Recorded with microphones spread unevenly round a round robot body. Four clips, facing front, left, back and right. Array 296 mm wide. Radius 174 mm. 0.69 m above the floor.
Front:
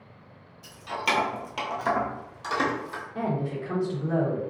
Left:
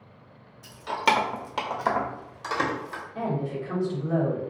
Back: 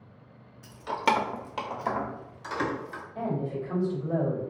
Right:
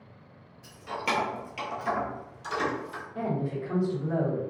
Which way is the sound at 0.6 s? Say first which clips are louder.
Left 7 dB, back 3 dB; 130° left.